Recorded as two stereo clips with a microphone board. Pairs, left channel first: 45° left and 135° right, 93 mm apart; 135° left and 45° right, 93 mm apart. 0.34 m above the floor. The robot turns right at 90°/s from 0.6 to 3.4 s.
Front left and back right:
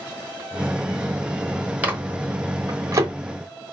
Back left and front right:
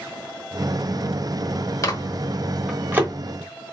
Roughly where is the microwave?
Behind.